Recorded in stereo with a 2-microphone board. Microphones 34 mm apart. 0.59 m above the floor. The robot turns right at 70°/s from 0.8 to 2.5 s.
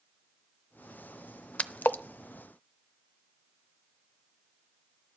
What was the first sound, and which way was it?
A splash, 40° left (ahead or behind).